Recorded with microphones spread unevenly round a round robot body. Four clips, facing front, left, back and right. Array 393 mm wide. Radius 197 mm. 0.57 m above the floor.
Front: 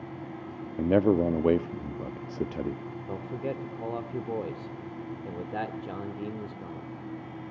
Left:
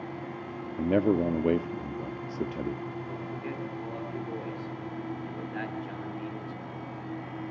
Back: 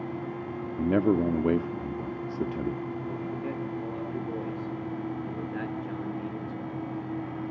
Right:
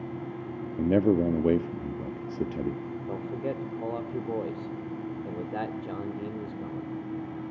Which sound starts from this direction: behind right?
A man speaking, at 0.8 s.